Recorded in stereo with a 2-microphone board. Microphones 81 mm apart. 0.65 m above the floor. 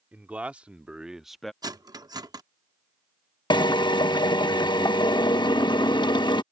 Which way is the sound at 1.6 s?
55° right (ahead or behind).